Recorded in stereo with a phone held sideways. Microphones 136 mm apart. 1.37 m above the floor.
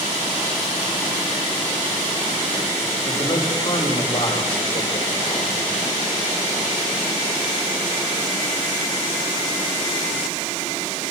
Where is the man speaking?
40° left (ahead or behind), 5 m.